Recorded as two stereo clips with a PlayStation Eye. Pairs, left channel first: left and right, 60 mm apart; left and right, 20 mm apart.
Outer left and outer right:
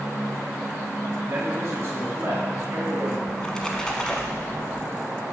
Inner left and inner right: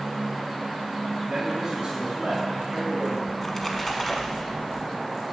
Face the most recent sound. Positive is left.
turn(degrees=10)  # may be behind; listen again after turning